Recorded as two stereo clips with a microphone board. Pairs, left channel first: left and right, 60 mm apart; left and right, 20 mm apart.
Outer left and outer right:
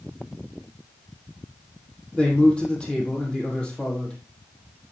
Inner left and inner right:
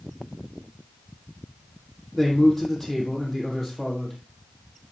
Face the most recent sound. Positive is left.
turn(degrees=15)  # may be behind; listen again after turning